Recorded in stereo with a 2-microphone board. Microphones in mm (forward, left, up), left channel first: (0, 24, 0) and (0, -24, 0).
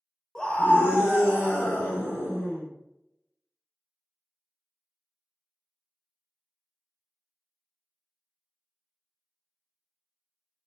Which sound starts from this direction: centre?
A scream, at 0.3 s.